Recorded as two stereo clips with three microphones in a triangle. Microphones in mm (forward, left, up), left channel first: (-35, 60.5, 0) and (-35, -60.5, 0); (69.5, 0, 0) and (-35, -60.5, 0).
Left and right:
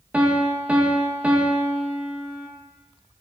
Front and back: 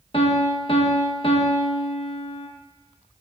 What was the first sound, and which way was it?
A piano, 10° right.